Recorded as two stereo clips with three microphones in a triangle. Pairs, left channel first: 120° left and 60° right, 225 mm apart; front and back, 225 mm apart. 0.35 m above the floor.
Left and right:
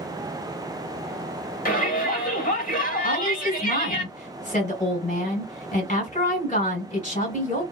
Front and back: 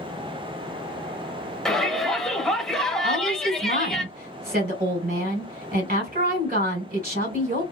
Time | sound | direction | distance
1.6 | a shout | 90° left | 1.2 m
3.0 | a woman speaking | 155° left | 1.6 m